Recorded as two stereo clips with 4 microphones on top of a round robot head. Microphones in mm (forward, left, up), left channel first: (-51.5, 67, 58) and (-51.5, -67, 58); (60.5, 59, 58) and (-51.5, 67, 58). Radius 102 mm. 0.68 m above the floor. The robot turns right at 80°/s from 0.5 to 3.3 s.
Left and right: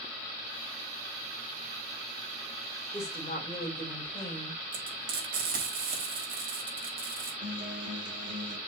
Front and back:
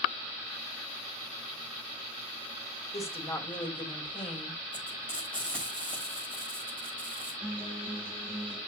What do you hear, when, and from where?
2.9 s a woman speaking: 10° left, 3.5 m; by 4.6 s 40° left, 3.5 m
4.7 s frying: 85° right, 4.5 m
7.4 s a guitar: 110° right, 1.8 m